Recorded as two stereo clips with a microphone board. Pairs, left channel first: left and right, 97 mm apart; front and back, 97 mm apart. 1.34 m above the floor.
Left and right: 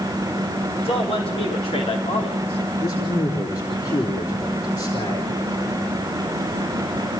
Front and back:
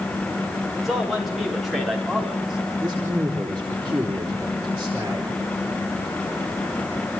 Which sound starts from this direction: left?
A man speaking, at 0.8 s.